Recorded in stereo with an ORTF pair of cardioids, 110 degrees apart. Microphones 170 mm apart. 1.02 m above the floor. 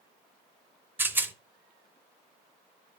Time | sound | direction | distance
1.0 | a rattle | 10° right | 0.6 m